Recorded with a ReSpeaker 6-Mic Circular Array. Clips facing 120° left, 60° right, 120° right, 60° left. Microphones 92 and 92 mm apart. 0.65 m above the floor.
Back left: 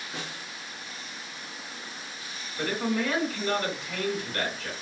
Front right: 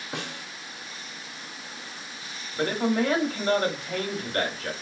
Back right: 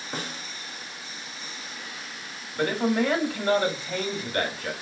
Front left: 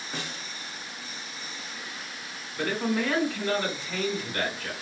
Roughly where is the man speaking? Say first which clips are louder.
Front right 4 dB, back right 4 dB; right.